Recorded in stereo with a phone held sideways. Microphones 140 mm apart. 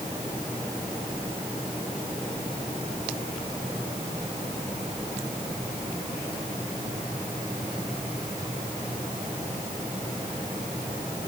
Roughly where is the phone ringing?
I don't hear a phone ringing.